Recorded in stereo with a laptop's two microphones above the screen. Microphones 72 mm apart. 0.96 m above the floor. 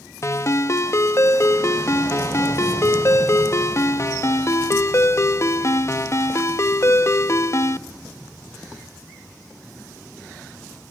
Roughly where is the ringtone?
Left.